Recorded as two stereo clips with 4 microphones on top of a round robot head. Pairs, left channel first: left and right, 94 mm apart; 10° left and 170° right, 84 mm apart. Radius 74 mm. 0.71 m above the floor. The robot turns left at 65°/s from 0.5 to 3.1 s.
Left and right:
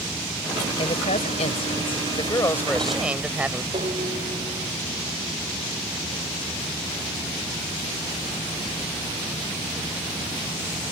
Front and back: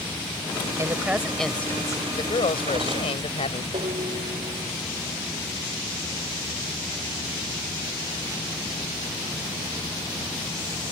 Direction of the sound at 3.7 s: 135° right.